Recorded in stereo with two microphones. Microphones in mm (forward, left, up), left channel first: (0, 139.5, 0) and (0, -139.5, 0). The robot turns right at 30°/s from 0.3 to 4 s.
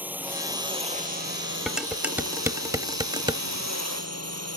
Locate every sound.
0.0 s a drone: 175° right; by 4.6 s 65° right
1.7 s dishes clattering: centre (ahead or behind); by 3.4 s 15° right (ahead or behind)